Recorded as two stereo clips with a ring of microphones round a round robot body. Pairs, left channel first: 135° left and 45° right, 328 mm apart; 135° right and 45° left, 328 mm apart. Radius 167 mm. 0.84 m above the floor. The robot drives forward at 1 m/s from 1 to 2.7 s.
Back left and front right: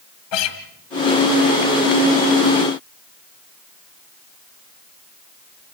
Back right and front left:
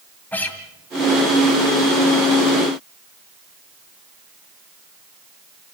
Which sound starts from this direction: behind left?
A guitar, at 0.3 s.